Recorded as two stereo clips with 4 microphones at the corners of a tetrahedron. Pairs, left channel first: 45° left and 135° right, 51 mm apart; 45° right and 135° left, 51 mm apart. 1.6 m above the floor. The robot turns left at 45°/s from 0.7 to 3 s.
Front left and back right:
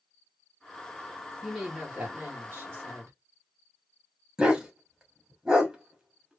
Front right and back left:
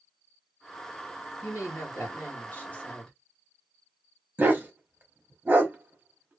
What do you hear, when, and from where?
1.4 s a woman speaking: 45° right, 2 m; by 3.1 s 115° right, 2 m
4.4 s a dog barking: 165° left, 1.2 m